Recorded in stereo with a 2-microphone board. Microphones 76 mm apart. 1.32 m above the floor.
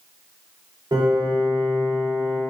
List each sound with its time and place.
0.9 s a piano: 70° right (ahead or behind), 1.0 m